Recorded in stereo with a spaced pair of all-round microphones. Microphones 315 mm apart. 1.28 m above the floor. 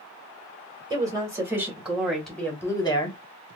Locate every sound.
0.9 s a woman speaking: 10° right (ahead or behind), 1.9 m; by 3.2 s 20° left (ahead or behind), 0.9 m